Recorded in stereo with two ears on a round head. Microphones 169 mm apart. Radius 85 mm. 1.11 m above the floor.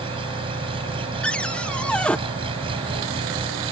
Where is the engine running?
30° right (ahead or behind).